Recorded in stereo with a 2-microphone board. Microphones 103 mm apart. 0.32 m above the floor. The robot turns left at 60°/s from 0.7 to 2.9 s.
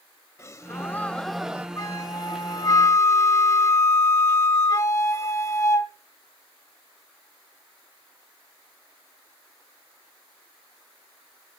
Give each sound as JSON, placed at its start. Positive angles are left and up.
{"t": 0.4, "sound": "a gasp", "azimuth_deg": 40, "distance_m": 0.6}
{"t": 1.8, "sound": "a flute", "azimuth_deg": 120, "distance_m": 1.7}